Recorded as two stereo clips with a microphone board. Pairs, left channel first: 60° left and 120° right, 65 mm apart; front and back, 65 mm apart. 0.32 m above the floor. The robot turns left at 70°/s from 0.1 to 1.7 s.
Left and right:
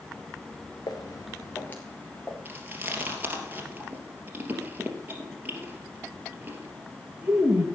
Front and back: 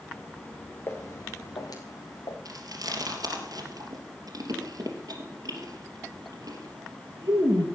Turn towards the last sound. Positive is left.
turn(degrees=175)